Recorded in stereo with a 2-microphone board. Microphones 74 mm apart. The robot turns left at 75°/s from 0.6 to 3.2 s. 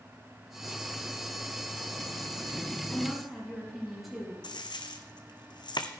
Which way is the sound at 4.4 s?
80° left.